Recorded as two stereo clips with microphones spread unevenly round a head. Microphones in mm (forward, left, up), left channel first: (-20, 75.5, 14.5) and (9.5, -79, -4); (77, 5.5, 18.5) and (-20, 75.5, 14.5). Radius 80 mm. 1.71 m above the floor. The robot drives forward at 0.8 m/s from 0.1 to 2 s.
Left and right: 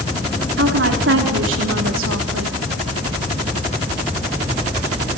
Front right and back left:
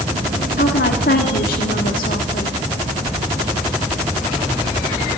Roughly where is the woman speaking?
Ahead right.